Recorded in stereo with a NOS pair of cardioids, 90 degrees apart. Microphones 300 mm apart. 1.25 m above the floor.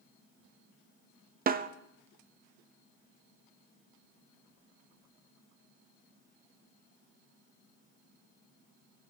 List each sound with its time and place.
1.5 s a snare drum: 30° right, 0.6 m